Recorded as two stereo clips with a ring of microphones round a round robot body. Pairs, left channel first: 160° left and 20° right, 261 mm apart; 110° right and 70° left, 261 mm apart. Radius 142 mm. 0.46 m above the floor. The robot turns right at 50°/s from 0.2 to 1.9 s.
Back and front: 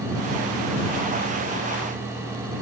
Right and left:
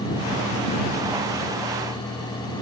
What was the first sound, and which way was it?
Only background noise.